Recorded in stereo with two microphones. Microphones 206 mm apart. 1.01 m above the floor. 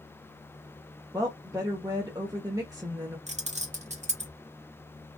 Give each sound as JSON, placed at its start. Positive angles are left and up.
{"t": 1.1, "sound": "a woman speaking", "side_deg": -15, "distance_m": 0.7}
{"t": 3.3, "sound": "keys jangling", "side_deg": -35, "distance_m": 0.7}